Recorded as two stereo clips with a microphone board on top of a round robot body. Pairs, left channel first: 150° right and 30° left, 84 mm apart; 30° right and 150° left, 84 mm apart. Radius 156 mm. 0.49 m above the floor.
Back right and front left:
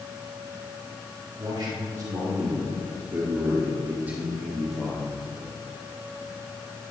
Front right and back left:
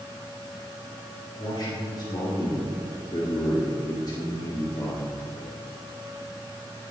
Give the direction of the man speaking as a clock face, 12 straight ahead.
12 o'clock.